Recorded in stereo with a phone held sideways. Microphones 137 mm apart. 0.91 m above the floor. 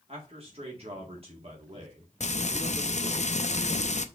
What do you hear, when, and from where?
0.1 s a man speaking: 45° right (ahead or behind), 2 m
2.2 s frying: 60° left (ahead or behind), 0.6 m